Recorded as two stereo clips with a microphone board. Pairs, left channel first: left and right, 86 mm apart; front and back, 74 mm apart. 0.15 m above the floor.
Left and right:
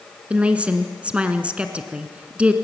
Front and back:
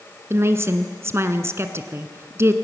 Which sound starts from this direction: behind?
A woman speaking, at 0.3 s.